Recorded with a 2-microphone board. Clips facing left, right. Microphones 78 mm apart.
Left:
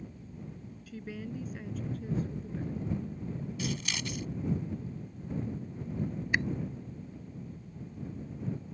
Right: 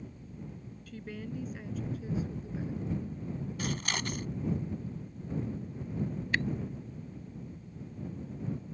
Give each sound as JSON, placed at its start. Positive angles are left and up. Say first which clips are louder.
{"t": 0.9, "sound": "a woman speaking", "louder": "left 1 dB", "side_deg": 5}
{"t": 3.6, "sound": "scissors", "louder": "right 2 dB", "side_deg": -50}
{"t": 6.3, "sound": "a camera shutter", "louder": "left 1 dB", "side_deg": 15}